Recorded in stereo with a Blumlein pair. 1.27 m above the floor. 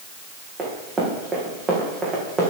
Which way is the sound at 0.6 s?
25° right.